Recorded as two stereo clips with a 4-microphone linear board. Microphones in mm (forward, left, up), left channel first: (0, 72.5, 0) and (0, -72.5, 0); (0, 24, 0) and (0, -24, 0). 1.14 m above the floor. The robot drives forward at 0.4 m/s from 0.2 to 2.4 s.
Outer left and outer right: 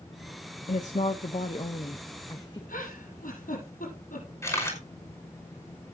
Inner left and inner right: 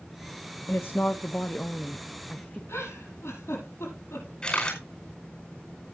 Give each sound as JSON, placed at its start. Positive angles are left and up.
{"t": 0.7, "sound": "a woman speaking", "side_deg": 60, "distance_m": 0.6}
{"t": 2.7, "sound": "a giggle", "side_deg": 70, "distance_m": 6.5}
{"t": 4.4, "sound": "a camera shutter", "side_deg": 20, "distance_m": 5.0}